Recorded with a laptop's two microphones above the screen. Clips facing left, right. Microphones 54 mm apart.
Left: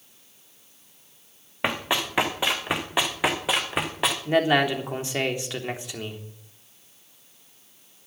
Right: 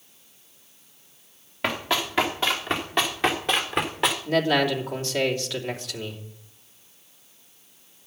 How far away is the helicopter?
No helicopter in this recording.